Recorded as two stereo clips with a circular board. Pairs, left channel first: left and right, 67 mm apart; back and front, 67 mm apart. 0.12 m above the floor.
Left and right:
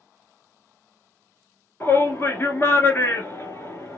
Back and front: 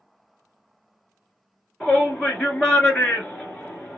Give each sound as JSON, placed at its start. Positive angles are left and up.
{"t": 1.8, "sound": "a shout", "azimuth_deg": 115, "distance_m": 1.6}